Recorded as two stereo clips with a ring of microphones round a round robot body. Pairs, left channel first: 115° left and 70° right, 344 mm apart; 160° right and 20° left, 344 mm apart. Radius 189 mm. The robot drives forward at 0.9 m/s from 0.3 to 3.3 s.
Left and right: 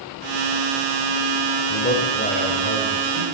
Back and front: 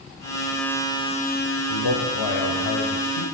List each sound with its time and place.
1.7 s a man speaking: 175° left, 4.5 m; by 3.2 s straight behind, 6 m